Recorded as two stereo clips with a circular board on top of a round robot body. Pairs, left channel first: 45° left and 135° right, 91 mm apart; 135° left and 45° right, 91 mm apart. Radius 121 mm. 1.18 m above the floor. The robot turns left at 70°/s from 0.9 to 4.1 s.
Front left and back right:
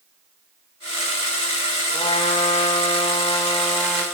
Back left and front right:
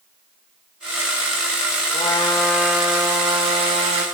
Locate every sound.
1.9 s a trumpet: 100° left, 1.3 m; by 4.0 s 45° right, 1.3 m